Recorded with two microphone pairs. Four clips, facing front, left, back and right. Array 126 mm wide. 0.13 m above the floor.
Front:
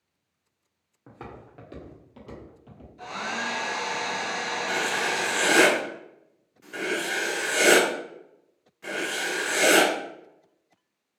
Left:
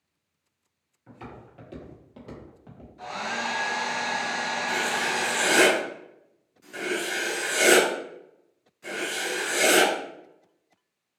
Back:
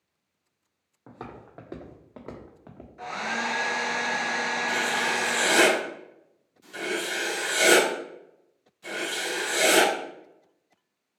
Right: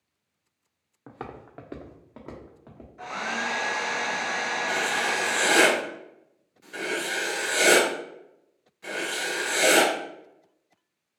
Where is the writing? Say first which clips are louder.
Right 1 dB, front 2 dB; 15° right, 1.4 m.